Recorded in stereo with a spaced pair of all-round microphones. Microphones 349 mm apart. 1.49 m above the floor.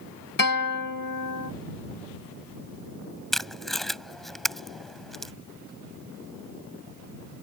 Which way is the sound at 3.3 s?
Centre (ahead or behind).